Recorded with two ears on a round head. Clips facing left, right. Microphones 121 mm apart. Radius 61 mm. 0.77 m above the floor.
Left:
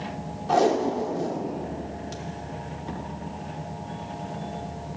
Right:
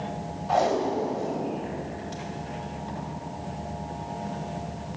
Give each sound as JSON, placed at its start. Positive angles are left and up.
{"t": 0.5, "sound": "tape being pulled", "side_deg": 55, "distance_m": 1.4}